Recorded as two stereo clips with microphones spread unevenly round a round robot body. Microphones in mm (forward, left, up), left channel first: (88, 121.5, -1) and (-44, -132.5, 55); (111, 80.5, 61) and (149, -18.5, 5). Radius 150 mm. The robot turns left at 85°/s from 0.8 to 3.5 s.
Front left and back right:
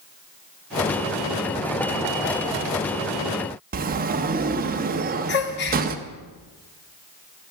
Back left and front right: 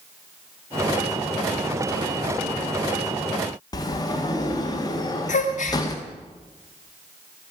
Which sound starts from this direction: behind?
A sliding door, at 3.7 s.